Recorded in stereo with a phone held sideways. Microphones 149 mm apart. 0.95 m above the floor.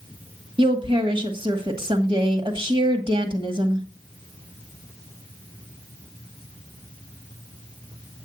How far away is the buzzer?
No buzzer in this recording.